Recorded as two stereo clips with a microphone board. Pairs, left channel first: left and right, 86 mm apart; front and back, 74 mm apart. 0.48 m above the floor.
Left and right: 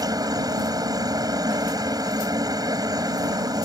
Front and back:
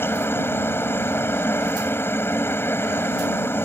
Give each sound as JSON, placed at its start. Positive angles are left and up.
{"t": 0.0, "sound": "a helicopter", "azimuth_deg": -55}